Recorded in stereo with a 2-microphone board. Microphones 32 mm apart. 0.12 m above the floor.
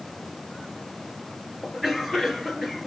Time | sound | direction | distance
1.6 | a cough | 5° right (ahead or behind) | 2.5 m